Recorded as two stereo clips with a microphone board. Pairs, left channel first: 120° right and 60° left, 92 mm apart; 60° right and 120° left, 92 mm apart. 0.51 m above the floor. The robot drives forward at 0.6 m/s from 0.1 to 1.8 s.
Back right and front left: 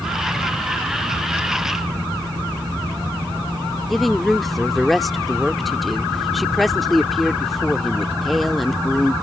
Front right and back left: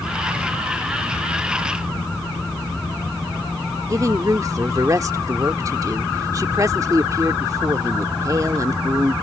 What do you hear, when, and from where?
3.9 s a woman speaking: 150° left